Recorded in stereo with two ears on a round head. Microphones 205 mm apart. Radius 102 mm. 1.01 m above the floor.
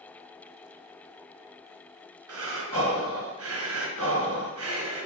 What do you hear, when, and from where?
2.3 s breathing: 75° right (ahead or behind), 2.5 m